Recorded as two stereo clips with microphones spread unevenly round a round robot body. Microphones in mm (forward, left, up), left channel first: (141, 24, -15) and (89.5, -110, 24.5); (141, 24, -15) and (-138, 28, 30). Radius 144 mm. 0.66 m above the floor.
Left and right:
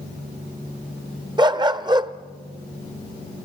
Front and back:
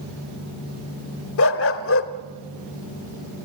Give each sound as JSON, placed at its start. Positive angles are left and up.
{"t": 1.4, "sound": "a dog barking", "azimuth_deg": -50, "distance_m": 1.0}